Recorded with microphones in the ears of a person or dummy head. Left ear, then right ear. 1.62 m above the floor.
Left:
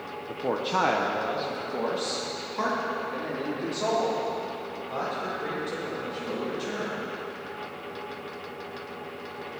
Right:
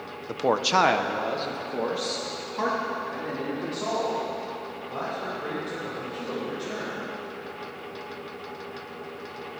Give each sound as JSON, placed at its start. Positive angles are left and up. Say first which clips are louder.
{"t": 0.3, "sound": "a man speaking", "louder": "right 5 dB", "side_deg": -60, "distance_m": 0.8}